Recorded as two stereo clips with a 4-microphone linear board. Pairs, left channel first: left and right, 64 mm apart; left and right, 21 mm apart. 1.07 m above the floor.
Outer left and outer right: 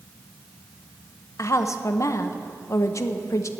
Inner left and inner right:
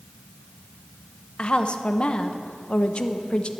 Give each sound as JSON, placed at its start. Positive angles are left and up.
{"t": 1.4, "sound": "a woman speaking", "side_deg": 55, "distance_m": 0.7}